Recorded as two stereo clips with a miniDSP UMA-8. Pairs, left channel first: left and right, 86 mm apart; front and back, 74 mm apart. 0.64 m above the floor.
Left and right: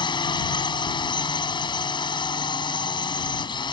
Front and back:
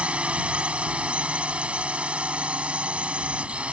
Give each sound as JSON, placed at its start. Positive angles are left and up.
{"t": 0.0, "sound": "a drone", "azimuth_deg": 105}